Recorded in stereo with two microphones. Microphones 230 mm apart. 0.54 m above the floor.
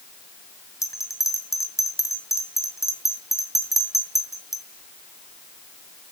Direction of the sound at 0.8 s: 15° left (ahead or behind).